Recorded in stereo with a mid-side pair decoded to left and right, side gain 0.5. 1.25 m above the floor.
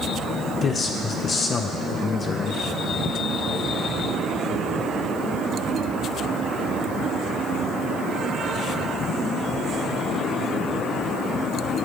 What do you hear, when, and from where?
0.6 s a man speaking: 40° left, 0.7 m